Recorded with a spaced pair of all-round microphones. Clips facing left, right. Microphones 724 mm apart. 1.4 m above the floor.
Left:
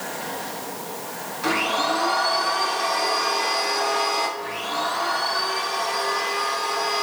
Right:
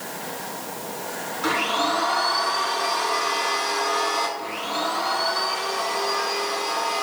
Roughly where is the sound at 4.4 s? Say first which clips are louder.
Even; left.